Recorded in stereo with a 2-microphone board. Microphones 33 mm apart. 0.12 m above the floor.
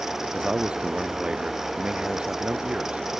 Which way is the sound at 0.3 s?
35° right (ahead or behind).